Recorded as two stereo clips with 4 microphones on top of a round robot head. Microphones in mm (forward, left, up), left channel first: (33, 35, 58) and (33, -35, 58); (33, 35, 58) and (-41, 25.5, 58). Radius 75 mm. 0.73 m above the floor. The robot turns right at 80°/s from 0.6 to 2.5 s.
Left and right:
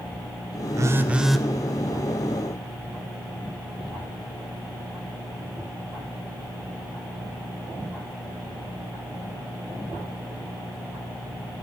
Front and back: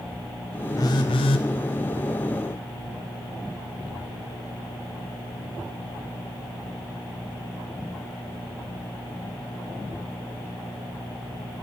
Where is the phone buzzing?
50° right, 0.6 m; by 1.5 s 10° left, 0.6 m.